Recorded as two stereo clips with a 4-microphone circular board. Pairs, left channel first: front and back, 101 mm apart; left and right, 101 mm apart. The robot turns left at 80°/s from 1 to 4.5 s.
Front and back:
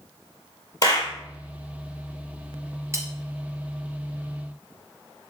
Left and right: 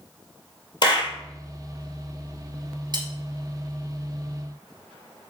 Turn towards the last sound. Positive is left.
turn(degrees=110)